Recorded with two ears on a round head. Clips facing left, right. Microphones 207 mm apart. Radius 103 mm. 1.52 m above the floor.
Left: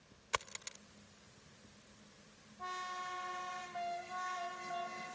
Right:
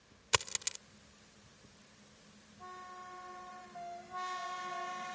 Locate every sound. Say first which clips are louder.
0.3 s a dropped coin: right 5 dB; 60° right (ahead or behind)